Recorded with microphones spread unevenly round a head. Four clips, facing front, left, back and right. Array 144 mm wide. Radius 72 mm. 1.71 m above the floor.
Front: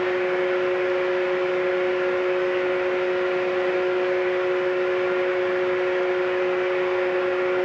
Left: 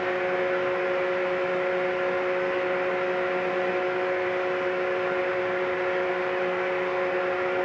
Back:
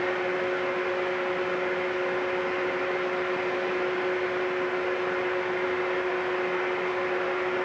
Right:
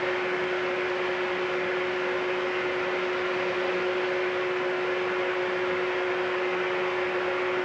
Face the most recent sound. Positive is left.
turn(degrees=35)